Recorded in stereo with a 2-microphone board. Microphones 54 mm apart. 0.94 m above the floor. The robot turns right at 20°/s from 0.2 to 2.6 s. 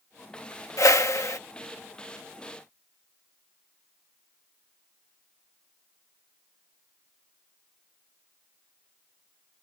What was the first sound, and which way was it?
A whoosh, 70° left (ahead or behind).